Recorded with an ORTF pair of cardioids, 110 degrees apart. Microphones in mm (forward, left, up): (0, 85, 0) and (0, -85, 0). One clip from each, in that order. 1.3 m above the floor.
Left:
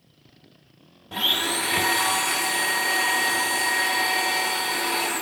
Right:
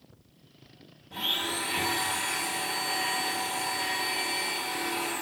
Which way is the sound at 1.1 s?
50° left.